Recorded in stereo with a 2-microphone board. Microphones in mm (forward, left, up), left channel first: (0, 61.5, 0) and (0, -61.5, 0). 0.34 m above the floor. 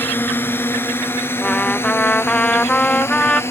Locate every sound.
0.0 s a drone: 15° left (ahead or behind); by 3.5 s 20° left (ahead or behind)
1.4 s a trumpet: 10° left (ahead or behind)